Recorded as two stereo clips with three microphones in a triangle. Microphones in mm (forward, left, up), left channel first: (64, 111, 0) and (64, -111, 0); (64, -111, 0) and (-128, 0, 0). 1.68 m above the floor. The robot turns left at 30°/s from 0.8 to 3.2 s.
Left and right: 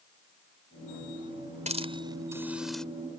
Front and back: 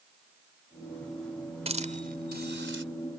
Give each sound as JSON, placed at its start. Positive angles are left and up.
{"t": 1.7, "sound": "a hiss", "azimuth_deg": -150}